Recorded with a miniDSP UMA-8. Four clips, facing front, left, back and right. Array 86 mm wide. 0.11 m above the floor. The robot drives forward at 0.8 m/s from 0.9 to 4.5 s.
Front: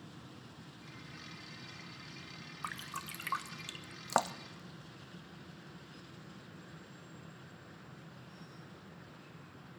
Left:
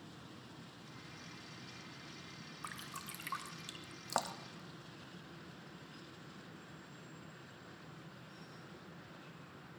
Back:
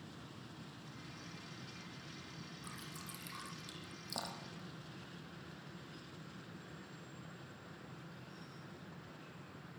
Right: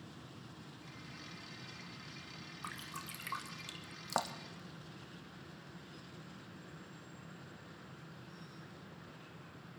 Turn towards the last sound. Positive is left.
turn(degrees=0)